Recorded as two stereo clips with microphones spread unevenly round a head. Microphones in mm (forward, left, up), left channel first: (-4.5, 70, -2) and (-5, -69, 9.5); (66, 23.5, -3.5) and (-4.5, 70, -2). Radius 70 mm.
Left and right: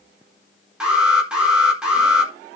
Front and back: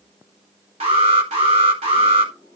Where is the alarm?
175° right, 4 m.